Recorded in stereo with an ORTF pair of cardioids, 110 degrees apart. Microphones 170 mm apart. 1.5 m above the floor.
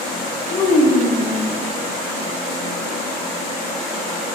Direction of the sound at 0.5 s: 30° left.